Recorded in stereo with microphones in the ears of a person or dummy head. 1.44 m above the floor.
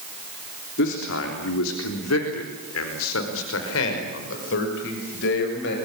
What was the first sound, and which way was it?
A man speaking, 65° left (ahead or behind).